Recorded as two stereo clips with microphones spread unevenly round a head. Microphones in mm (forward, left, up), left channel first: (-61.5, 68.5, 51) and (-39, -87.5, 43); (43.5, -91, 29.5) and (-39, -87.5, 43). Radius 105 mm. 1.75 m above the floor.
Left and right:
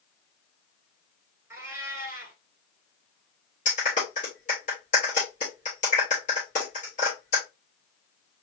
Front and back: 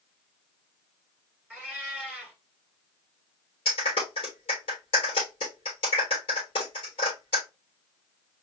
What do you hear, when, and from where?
1.5 s a cat meowing: 145° right, 1.5 m
3.6 s a clap: 40° left, 3 m